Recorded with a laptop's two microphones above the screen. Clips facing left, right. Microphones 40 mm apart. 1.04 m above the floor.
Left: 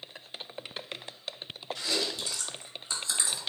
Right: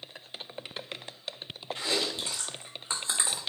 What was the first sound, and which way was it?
Chewing, 35° right (ahead or behind).